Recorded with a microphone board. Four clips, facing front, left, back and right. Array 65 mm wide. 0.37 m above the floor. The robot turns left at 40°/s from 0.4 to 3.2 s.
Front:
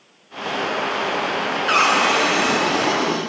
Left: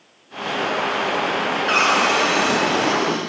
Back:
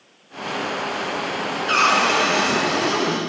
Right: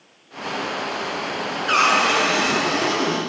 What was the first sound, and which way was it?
A cupboard door, 20° left.